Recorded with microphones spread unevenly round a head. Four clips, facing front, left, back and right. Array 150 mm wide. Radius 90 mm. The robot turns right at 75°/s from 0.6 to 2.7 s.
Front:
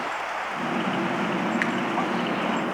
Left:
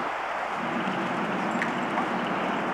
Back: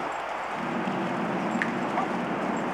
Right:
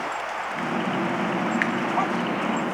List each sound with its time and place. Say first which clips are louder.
1.6 s a finger snap: right 3 dB, front 3 dB; 85° right, 1.1 m; by 1.7 s 80° right, 1.1 m